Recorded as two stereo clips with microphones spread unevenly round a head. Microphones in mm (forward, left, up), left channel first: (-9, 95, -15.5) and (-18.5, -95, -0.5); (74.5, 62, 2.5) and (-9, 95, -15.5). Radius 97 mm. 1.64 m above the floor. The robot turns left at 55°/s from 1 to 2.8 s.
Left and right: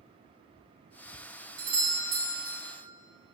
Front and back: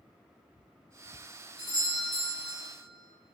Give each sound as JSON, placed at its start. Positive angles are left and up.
{"t": 1.6, "sound": "a doorbell", "azimuth_deg": -85, "distance_m": 1.4}